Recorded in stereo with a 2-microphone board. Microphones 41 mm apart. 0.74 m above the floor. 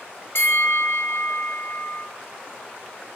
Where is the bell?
70° left (ahead or behind), 3 m.